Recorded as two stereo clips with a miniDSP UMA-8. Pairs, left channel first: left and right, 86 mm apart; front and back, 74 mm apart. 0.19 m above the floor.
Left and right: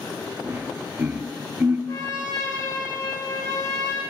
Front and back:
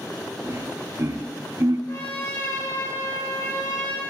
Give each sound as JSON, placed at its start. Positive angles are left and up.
{"t": 0.4, "sound": "laughter", "azimuth_deg": -145, "distance_m": 3.5}
{"t": 1.9, "sound": "a trumpet", "azimuth_deg": 50, "distance_m": 9.0}